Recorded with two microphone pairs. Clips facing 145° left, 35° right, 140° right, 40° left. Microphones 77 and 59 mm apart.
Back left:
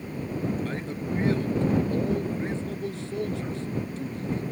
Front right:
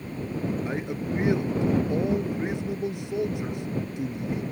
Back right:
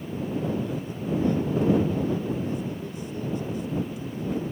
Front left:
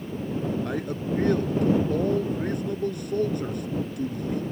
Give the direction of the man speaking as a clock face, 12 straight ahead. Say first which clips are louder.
Front right 2 dB, front left 1 dB; 11 o'clock.